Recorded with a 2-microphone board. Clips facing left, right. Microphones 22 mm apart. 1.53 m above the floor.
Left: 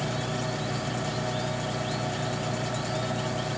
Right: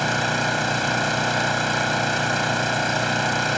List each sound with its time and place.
0.0 s an engine running: 75° right (ahead or behind)